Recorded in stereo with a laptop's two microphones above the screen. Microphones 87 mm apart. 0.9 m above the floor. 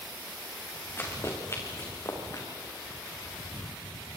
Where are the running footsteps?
30° left (ahead or behind), 5 m; by 2.5 s 45° left (ahead or behind), 4.5 m.